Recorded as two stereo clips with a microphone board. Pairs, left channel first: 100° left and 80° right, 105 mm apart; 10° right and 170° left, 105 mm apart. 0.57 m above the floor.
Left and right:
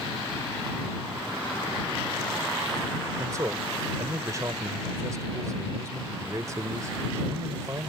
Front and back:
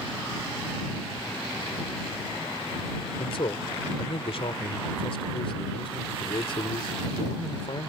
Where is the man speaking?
25° right.